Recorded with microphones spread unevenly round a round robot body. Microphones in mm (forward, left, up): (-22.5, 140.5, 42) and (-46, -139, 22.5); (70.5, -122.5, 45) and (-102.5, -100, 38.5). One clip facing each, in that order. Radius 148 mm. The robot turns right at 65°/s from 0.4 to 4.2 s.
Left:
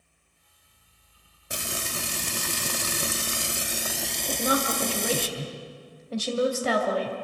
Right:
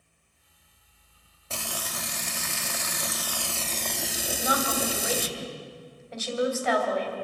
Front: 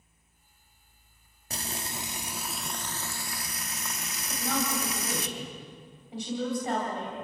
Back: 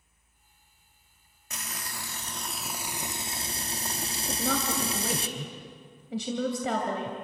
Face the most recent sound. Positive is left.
turn(degrees=140)